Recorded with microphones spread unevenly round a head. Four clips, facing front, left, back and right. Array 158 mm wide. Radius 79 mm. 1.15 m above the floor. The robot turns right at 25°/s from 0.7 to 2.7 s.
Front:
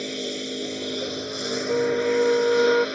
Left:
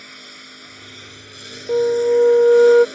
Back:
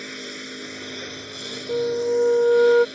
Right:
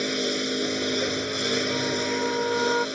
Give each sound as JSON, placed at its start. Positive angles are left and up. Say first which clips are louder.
{"t": 0.0, "sound": "a lawn mower", "louder": "right 17 dB, front 6 dB", "azimuth_deg": -50}
{"t": 1.7, "sound": "a flute", "louder": "left 11 dB, back 1 dB", "azimuth_deg": 70}